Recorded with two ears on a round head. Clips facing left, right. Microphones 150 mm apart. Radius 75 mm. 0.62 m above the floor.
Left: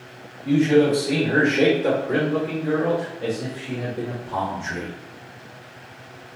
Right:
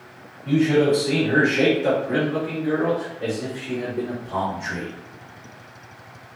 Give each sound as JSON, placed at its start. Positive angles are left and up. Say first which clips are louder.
{"t": 0.5, "sound": "a man speaking", "louder": "left 1 dB", "side_deg": 10, "distance_m": 1.4}